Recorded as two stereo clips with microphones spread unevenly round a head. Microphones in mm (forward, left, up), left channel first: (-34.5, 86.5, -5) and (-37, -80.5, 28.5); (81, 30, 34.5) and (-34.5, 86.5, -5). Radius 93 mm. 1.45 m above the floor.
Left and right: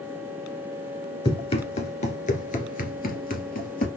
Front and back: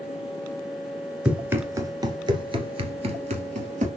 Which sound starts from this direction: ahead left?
Running footsteps, at 1.2 s.